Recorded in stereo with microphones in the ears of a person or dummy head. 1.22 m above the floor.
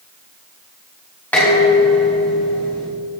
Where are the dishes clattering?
15° left (ahead or behind), 4.5 m.